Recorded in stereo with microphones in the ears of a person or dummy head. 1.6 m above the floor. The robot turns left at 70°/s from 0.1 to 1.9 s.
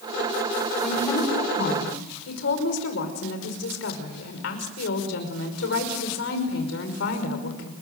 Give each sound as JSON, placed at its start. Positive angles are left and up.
{"t": 0.8, "sound": "a woman speaking", "azimuth_deg": 180, "distance_m": 5.5}